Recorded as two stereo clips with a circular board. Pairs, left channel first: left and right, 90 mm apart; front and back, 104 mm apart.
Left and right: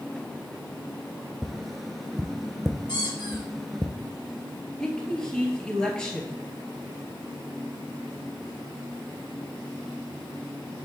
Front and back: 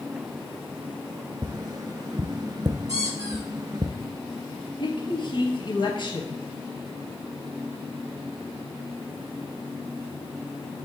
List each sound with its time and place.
1.4 s tapping: straight behind, 0.5 m
2.9 s a squeak: 125° left, 2.5 m
4.8 s a woman speaking: 10° left, 1.7 m